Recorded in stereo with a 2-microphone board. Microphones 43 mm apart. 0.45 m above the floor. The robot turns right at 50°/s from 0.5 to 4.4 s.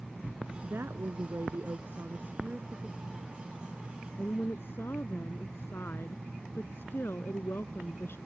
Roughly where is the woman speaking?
Behind right.